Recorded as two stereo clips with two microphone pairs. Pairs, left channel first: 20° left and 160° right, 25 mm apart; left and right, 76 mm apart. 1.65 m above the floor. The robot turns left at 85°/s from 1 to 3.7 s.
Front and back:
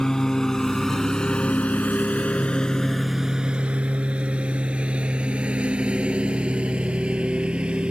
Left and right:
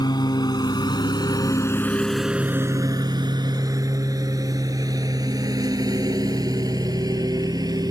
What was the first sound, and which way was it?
A lawn mower, 85° left.